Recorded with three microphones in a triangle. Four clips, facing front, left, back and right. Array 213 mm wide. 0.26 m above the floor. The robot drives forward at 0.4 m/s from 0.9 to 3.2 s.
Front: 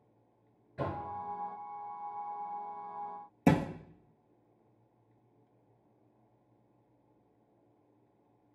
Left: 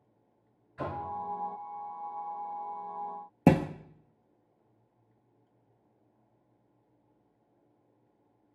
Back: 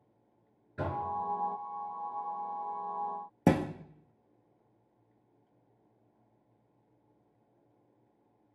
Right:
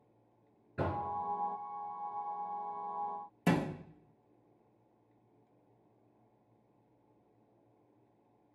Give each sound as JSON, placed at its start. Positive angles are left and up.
{"t": 0.8, "sound": "knocking", "azimuth_deg": -110, "distance_m": 3.5}
{"t": 3.5, "sound": "a thud", "azimuth_deg": 110, "distance_m": 0.8}